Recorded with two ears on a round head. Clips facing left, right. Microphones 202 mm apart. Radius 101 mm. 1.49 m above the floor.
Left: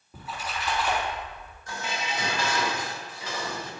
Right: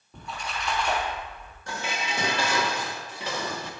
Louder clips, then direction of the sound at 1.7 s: Right 1 dB; 55° right (ahead or behind).